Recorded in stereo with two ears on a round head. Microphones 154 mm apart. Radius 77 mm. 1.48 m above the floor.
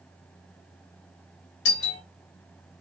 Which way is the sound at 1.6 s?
75° left (ahead or behind).